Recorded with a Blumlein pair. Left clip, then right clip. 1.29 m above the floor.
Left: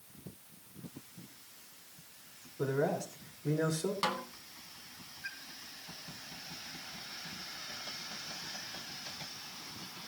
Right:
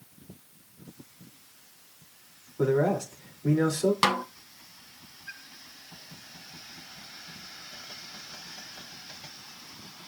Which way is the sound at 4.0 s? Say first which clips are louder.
Right 9 dB; 30° right.